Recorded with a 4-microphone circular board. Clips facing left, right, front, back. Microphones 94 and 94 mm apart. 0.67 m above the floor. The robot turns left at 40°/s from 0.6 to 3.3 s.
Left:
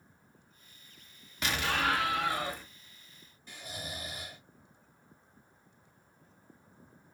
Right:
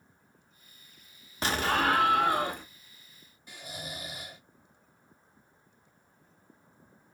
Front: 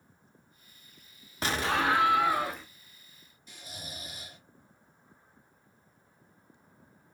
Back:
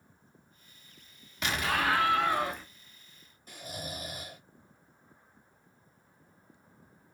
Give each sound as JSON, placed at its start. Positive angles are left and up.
{"t": 1.4, "sound": "an explosion", "azimuth_deg": -45, "distance_m": 0.6}
{"t": 3.5, "sound": "snoring", "azimuth_deg": -165, "distance_m": 0.8}